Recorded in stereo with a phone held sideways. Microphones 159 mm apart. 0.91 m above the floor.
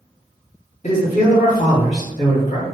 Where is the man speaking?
50° left (ahead or behind), 1.6 m.